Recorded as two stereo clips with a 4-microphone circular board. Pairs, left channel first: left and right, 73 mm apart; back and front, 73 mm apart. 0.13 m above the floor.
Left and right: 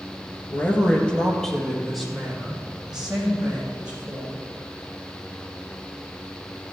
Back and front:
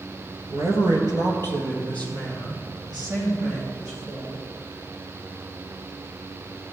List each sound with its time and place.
0.5 s a man speaking: 35° left, 1.8 m; by 4.5 s 10° right, 6.5 m